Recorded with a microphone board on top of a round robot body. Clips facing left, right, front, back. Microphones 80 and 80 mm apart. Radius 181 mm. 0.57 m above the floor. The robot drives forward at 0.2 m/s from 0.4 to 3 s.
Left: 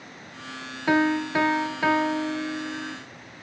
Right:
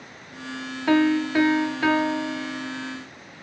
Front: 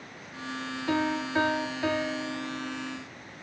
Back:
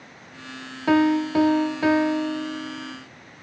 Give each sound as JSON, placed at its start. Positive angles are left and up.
{"t": 0.9, "sound": "a piano", "azimuth_deg": 170, "distance_m": 0.6}